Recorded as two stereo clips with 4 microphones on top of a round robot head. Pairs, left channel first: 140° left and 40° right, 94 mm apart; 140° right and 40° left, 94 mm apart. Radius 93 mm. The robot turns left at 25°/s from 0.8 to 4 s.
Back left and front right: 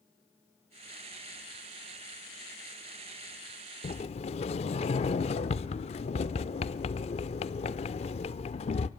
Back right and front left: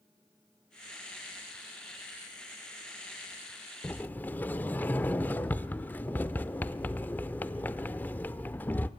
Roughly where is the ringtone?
No ringtone in this recording.